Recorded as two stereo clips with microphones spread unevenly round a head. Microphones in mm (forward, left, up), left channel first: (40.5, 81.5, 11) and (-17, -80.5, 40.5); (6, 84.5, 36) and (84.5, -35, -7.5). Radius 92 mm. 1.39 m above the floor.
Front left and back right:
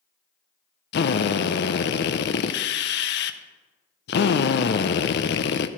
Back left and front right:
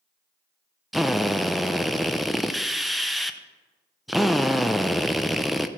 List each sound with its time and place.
0.9 s a drill: 45° left, 0.5 m